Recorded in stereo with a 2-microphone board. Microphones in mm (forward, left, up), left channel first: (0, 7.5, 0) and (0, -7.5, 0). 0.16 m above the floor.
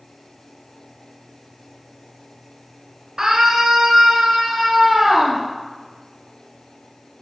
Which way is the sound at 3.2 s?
50° right (ahead or behind).